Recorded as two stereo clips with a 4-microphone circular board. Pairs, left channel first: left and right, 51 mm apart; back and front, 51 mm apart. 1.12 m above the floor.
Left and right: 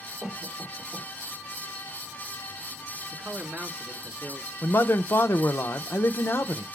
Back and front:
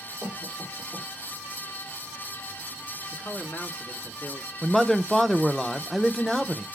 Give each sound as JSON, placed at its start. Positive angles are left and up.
{"t": 0.2, "sound": "a cough", "azimuth_deg": -170, "distance_m": 3.0}
{"t": 3.1, "sound": "a man speaking", "azimuth_deg": -140, "distance_m": 2.5}
{"t": 4.6, "sound": "a man speaking", "azimuth_deg": 95, "distance_m": 0.6}